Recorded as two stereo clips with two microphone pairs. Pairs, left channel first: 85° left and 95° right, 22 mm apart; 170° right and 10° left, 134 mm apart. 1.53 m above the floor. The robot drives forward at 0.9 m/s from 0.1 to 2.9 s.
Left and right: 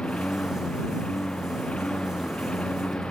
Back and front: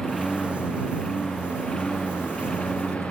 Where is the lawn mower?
100° left; by 3.1 s 105° left.